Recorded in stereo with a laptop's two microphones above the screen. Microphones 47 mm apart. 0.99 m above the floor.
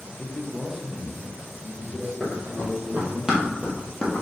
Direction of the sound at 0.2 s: 20° left (ahead or behind).